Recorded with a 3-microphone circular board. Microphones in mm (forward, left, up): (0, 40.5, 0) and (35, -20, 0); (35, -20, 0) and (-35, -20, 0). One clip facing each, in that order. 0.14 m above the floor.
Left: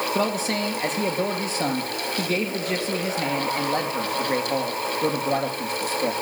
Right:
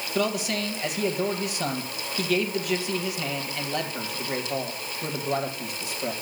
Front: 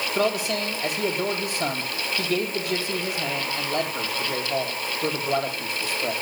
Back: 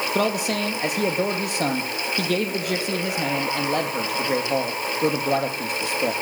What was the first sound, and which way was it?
A man speaking, 170° left.